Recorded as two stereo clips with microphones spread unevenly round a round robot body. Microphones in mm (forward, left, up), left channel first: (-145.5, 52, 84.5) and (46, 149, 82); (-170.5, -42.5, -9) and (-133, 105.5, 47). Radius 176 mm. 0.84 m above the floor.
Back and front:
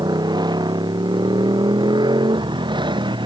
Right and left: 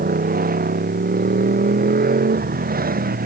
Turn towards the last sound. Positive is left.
turn(degrees=95)